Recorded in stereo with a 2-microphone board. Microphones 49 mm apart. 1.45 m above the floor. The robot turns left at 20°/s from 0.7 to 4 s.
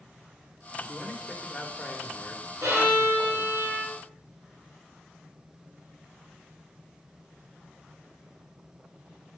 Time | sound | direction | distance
0.8 | a man speaking | straight behind | 1.4 m
2.6 | a violin | 85° right | 2.5 m